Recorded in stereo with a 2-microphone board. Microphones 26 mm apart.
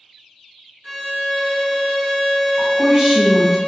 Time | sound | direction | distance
0.8 | a violin | 15° right (ahead or behind) | 1.2 m
2.6 | a woman speaking | 25° right (ahead or behind) | 1.3 m